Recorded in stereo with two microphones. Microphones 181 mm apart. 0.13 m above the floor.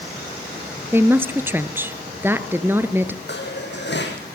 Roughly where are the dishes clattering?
Left.